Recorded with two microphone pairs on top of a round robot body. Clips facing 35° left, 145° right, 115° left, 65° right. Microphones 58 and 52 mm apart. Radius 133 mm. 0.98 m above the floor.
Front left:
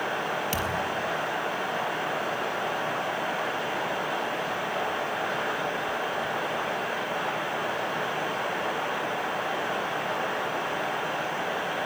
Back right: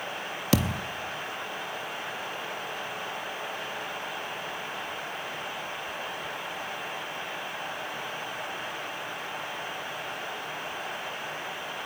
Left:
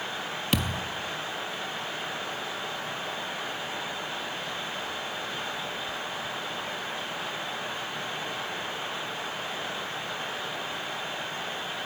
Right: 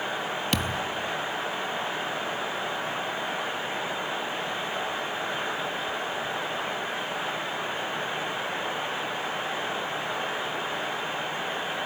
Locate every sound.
0.5 s a thud: 155° right, 0.6 m